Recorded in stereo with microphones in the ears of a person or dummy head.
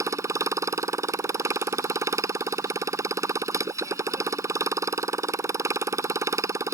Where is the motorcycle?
20° right (ahead or behind).